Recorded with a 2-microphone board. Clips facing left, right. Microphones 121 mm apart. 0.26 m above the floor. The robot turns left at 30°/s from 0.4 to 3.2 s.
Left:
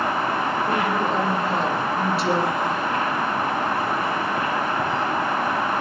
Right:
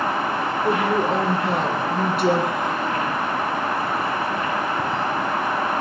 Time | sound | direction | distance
0.6 | a woman speaking | 80° right | 4.5 m